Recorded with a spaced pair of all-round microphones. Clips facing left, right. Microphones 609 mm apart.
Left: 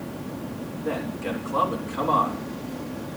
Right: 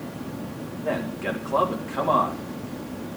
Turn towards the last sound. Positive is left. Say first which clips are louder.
# right 1 dB
turn(degrees=-75)  # may be behind; listen again after turning